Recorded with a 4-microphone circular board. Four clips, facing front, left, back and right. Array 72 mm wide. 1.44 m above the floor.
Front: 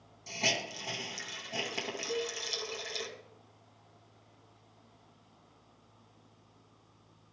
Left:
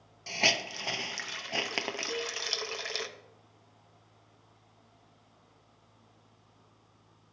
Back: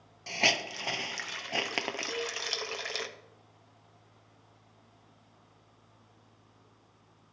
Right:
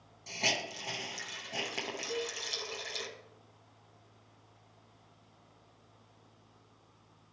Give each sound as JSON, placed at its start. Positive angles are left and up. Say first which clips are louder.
{"t": 0.3, "sound": "a hiss", "louder": "left 4 dB, back 4 dB", "azimuth_deg": 145, "distance_m": 0.7}
{"t": 2.1, "sound": "a cowbell", "louder": "left 1 dB, front 1 dB", "azimuth_deg": 155, "distance_m": 3.5}